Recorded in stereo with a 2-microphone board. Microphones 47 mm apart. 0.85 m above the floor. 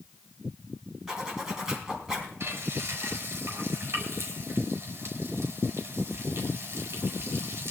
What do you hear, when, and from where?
1.1 s a zipper: 15° right (ahead or behind), 4 m
2.4 s frying: 55° right (ahead or behind), 4.5 m